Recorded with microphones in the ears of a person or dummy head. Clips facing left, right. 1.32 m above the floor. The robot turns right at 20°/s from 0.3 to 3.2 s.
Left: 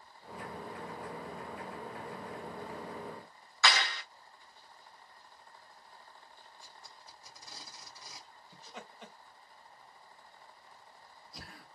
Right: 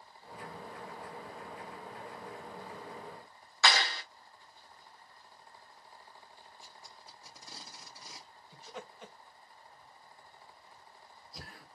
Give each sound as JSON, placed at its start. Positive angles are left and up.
{"t": 3.6, "sound": "a clap", "side_deg": -35, "distance_m": 0.5}
{"t": 6.6, "sound": "tape being pulled", "side_deg": -45, "distance_m": 1.9}
{"t": 8.5, "sound": "laughter", "side_deg": 0, "distance_m": 1.1}